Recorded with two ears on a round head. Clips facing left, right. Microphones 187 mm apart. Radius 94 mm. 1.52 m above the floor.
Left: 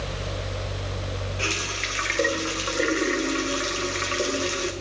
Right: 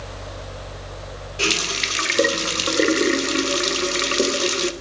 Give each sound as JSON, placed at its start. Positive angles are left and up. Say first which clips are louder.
{"t": 1.4, "sound": "a running tap", "louder": "right 5 dB", "side_deg": -50, "distance_m": 0.8}